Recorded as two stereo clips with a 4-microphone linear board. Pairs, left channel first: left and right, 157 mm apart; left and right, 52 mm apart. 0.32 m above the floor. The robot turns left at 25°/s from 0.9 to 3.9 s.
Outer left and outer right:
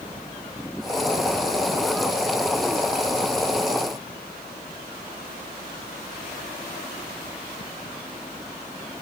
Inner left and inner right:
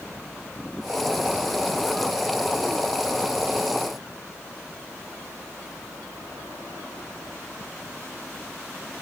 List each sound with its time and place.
Only background noise.